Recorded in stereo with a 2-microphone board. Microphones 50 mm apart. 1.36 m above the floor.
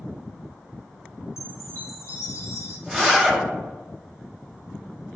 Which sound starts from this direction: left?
A chime, at 1.4 s.